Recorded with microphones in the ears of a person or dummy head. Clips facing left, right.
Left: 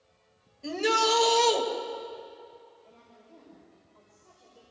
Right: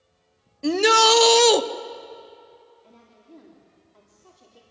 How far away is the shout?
About 1.0 m.